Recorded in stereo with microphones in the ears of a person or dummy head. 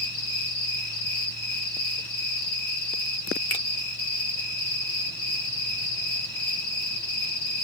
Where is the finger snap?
15° left (ahead or behind), 0.5 m.